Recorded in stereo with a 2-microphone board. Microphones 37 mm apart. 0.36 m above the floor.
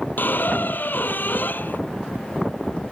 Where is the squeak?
60° left (ahead or behind).